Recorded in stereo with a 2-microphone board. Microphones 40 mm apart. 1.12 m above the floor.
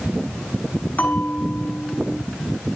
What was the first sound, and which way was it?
A bell, 50° left (ahead or behind).